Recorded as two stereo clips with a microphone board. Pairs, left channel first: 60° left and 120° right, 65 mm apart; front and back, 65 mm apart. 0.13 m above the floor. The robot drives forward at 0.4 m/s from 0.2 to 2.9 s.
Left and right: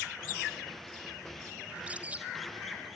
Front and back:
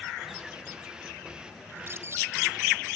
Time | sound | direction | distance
1.7 | a bird | 175° right | 1.5 m